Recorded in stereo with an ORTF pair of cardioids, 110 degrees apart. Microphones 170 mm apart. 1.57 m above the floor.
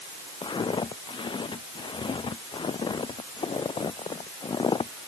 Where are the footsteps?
30° left.